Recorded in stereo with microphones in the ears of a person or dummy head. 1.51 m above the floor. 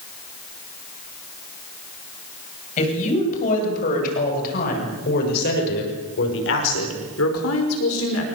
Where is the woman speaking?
40° left (ahead or behind), 10 m; by 8.2 s 80° left, 5 m.